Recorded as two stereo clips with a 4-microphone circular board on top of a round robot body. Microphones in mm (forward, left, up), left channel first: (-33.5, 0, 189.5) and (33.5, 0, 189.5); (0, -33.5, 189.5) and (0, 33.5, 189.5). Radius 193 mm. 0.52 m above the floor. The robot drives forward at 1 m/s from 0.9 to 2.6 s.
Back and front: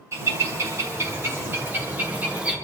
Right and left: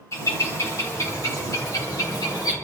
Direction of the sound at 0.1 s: 50° right.